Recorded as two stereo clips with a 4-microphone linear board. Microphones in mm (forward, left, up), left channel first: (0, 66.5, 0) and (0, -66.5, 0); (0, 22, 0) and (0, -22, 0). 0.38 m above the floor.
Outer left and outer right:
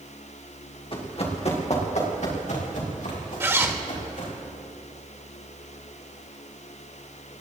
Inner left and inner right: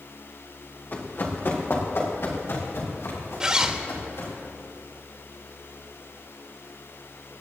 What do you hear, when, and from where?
0.9 s running footsteps: 45° left (ahead or behind), 3.5 m; by 4.3 s 75° left (ahead or behind), 8 m
3.4 s a zipper: 20° right (ahead or behind), 1.4 m